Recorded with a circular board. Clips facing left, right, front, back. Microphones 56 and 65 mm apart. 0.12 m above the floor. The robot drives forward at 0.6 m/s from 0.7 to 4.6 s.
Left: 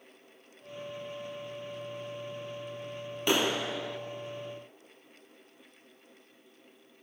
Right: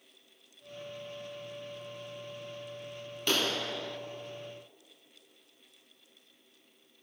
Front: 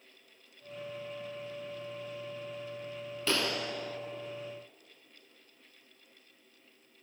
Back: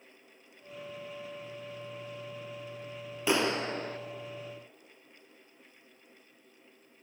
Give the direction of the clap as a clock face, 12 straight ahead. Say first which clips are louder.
Left 3 dB, back 4 dB; 8 o'clock.